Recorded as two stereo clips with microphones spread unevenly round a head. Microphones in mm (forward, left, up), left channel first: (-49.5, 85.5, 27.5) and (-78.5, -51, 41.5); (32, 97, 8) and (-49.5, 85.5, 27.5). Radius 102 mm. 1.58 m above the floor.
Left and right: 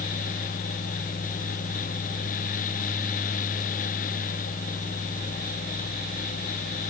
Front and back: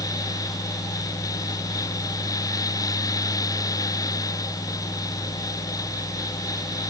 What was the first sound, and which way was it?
Only background noise.